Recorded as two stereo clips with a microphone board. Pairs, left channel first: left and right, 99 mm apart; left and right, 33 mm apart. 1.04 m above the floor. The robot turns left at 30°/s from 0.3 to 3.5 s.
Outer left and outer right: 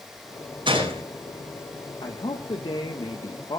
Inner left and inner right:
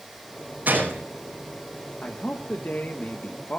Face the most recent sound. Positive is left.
turn(degrees=65)